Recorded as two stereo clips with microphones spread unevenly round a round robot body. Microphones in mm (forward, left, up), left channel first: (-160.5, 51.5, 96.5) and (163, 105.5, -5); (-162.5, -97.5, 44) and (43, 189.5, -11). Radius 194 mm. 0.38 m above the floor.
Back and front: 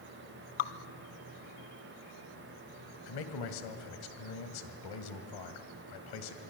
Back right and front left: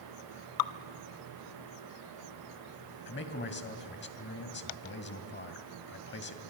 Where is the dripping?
150° right, 0.9 m.